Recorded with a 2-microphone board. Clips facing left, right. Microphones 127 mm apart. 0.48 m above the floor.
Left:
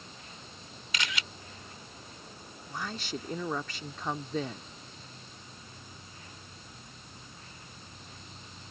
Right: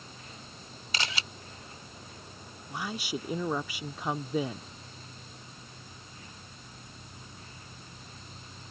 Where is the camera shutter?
30° right (ahead or behind).